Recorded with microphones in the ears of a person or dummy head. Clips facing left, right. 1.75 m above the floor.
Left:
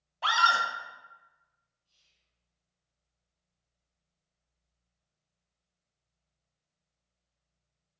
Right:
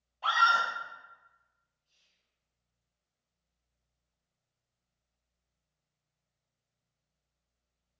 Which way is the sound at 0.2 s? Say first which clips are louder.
Left 1 dB; 70° left (ahead or behind).